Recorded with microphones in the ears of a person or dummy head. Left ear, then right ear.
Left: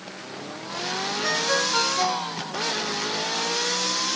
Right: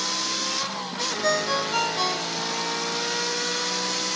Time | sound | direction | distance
1.2 | a ringtone | 35° right (ahead or behind) | 3 m